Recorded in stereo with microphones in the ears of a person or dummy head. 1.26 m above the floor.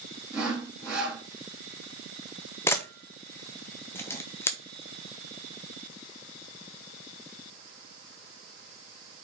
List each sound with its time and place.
0.3 s sawing: 10° right (ahead or behind), 2.5 m
2.7 s a camera shutter: 20° left (ahead or behind), 0.7 m